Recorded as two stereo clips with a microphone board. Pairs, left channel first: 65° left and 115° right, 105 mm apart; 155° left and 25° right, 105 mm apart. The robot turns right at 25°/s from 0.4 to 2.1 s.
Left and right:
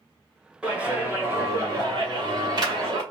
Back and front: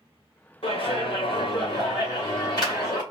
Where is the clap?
165° left, 2.5 m; by 3.0 s 155° right, 2.5 m.